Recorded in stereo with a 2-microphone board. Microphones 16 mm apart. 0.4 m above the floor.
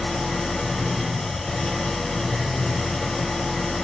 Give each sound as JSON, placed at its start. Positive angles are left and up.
{"t": 0.0, "sound": "an engine running", "side_deg": 50, "distance_m": 0.7}